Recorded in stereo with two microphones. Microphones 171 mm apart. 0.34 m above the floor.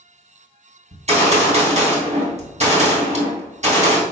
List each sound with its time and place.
0.9 s a gunshot: 40° right (ahead or behind), 3 m